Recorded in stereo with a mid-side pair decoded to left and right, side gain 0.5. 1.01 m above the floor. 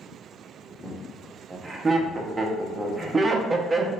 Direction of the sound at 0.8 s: 25° right.